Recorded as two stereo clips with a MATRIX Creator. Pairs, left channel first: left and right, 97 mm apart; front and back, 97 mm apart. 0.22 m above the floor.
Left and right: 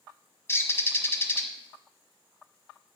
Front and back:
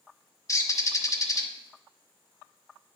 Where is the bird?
35° left, 0.8 m.